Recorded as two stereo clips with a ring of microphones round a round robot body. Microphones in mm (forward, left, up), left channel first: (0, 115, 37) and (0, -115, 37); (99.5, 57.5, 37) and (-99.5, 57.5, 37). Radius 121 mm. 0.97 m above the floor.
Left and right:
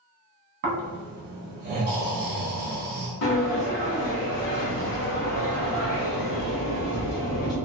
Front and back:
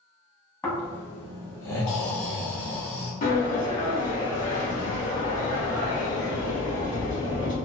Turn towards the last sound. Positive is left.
turn(degrees=50)